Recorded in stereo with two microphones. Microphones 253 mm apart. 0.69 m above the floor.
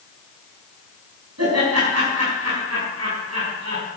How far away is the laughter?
About 5.5 m.